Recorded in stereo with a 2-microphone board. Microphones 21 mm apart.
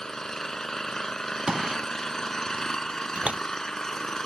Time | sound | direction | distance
0.0 | an engine running | 25° left (ahead or behind) | ?
1.5 | a gunshot | 40° right (ahead or behind) | ?
3.1 | a door slam | 75° right (ahead or behind) | ?